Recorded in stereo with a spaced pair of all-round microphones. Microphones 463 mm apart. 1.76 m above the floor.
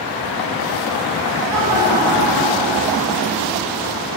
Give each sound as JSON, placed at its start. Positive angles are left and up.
{"t": 1.5, "sound": "laughter", "side_deg": -35, "distance_m": 8.5}